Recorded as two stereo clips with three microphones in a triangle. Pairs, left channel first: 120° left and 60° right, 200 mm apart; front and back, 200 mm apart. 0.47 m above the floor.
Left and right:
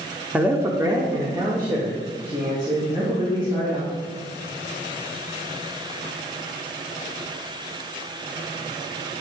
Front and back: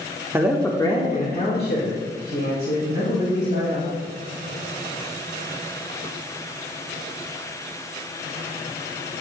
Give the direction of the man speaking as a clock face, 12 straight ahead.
4 o'clock.